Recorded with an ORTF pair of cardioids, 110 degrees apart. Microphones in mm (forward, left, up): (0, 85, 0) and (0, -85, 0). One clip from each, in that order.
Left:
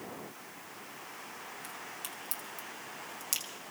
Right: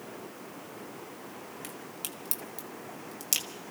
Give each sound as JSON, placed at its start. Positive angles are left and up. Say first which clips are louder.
{"t": 1.6, "sound": "a crack", "louder": "right 1 dB", "azimuth_deg": -40, "distance_m": 2.0}